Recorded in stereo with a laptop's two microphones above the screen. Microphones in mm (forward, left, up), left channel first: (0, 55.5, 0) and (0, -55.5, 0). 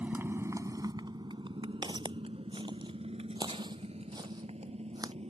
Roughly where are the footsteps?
Right.